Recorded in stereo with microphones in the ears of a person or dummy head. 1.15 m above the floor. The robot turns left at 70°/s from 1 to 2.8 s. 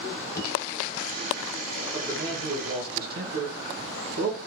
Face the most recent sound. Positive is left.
turn(degrees=-70)